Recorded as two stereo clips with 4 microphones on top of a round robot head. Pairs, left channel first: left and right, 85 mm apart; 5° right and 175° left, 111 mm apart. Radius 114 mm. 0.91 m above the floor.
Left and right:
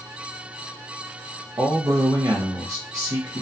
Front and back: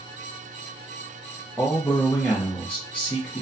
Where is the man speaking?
75° right, 0.8 m.